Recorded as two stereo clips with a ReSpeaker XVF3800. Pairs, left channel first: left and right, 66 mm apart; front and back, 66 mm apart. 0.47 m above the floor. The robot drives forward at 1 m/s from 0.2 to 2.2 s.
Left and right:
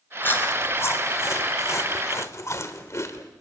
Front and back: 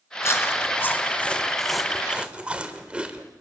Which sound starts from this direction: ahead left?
Chewing, at 0.2 s.